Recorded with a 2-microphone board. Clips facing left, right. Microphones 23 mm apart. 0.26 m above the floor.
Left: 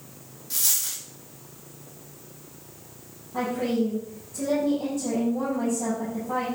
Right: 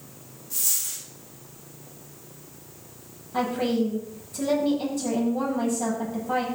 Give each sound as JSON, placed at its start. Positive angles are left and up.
{"t": 0.5, "sound": "a dropped coin", "side_deg": 80, "distance_m": 3.5}
{"t": 3.3, "sound": "a woman speaking", "side_deg": -75, "distance_m": 8.0}